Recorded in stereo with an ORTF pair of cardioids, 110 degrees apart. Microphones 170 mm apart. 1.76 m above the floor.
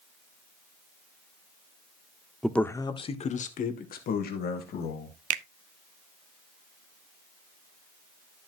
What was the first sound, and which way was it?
A man speaking, straight ahead.